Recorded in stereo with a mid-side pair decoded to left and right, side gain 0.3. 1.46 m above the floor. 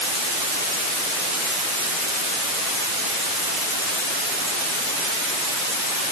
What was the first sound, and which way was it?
Only background noise.